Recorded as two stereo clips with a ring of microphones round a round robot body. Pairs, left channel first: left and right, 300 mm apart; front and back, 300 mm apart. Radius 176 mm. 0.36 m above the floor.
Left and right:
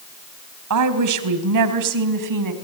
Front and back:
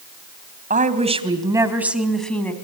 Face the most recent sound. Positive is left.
turn(degrees=-85)